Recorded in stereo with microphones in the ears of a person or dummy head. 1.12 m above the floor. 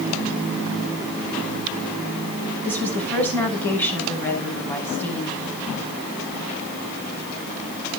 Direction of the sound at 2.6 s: 10° left (ahead or behind).